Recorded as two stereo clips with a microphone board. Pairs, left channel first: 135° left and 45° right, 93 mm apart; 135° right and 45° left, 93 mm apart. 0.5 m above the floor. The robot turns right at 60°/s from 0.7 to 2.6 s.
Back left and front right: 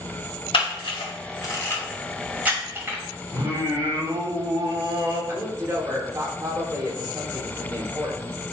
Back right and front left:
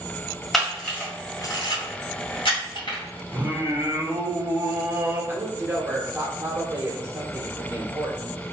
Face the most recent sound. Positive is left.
turn(degrees=-5)